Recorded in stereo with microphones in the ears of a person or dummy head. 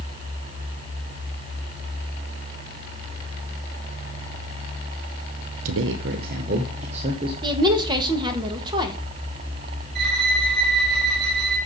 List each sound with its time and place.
5.7 s a man speaking: 80° right, 0.8 m; by 7.3 s 30° right (ahead or behind), 1.5 m
7.4 s a woman speaking: 25° right (ahead or behind), 1.6 m
9.9 s a violin: 55° right (ahead or behind), 4 m